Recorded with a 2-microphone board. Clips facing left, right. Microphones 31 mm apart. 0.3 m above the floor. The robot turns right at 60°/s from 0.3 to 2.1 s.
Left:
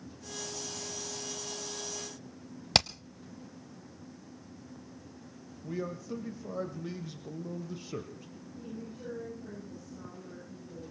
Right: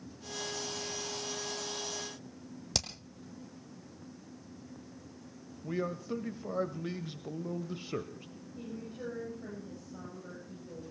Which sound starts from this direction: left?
Hammering, at 2.7 s.